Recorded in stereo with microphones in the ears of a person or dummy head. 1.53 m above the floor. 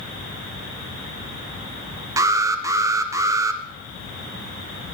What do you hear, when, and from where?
2.2 s an alarm: 15° right (ahead or behind), 0.5 m